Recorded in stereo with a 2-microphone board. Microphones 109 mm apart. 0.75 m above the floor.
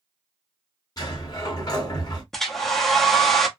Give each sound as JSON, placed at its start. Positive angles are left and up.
{"t": 1.0, "sound": "a sliding door", "side_deg": 35, "distance_m": 1.5}
{"t": 2.3, "sound": "a hair dryer", "side_deg": 5, "distance_m": 0.6}